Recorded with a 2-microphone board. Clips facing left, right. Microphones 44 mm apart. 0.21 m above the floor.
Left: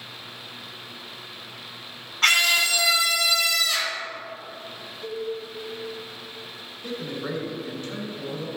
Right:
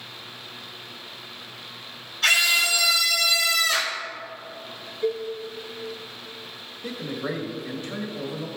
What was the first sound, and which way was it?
A scream, 50° left (ahead or behind).